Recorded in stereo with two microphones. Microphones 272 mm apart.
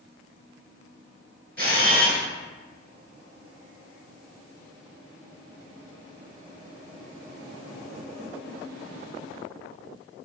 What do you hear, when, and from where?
1.6 s a camera shutter: 35° right (ahead or behind), 1.0 m